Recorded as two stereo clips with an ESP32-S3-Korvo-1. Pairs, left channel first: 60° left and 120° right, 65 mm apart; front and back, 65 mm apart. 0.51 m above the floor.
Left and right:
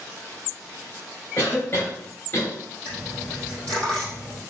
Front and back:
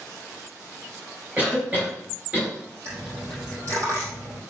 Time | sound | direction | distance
1.4 | a cough | 115° left | 3 m
2.9 | a dropped coin | 135° left | 5 m